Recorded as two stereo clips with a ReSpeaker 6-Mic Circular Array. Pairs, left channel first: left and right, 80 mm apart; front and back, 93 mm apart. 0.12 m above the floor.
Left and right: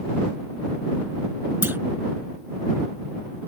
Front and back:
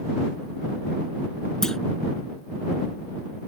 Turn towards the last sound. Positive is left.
turn(degrees=-75)